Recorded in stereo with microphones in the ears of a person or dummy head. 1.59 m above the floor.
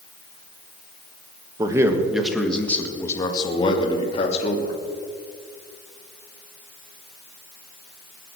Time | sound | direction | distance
1.6 | a man speaking | 20° right (ahead or behind) | 1.6 m